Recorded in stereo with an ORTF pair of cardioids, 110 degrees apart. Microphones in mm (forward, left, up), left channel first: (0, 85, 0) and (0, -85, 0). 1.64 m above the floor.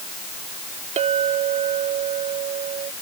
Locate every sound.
1.0 s a clink: 45° right